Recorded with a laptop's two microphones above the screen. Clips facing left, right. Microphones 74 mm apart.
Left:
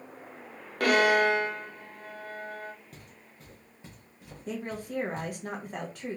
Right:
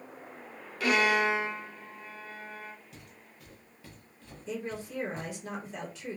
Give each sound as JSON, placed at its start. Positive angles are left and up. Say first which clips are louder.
{"t": 0.8, "sound": "a violin", "louder": "left 3 dB", "side_deg": 55, "distance_m": 0.6}
{"t": 2.9, "sound": "footsteps", "louder": "left 1 dB", "side_deg": 45, "distance_m": 1.4}
{"t": 4.5, "sound": "a woman speaking", "louder": "left 1 dB", "side_deg": 55, "distance_m": 1.0}